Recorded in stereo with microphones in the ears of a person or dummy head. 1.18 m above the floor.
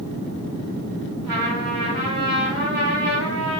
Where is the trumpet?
5° right (ahead or behind), 1.5 m.